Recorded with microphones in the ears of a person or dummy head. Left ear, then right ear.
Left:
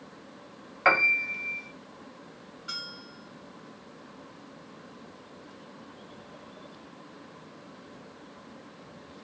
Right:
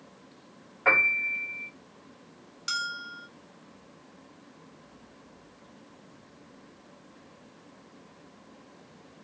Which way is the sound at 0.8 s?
80° left.